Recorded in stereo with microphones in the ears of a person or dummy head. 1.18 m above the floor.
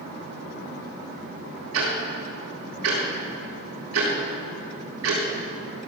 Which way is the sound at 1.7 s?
80° right.